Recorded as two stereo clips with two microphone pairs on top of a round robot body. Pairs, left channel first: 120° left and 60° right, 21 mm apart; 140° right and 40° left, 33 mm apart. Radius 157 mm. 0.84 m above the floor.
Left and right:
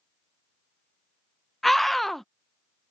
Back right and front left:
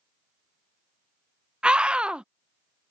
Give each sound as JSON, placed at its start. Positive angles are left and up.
{"t": 1.6, "sound": "a scream", "azimuth_deg": 35}